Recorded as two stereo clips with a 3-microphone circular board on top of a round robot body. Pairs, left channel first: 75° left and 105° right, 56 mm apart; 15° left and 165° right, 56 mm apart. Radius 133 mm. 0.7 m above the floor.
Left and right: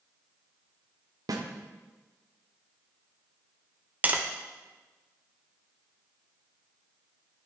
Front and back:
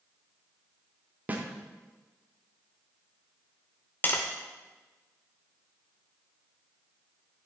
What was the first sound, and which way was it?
A snare drum, 100° right.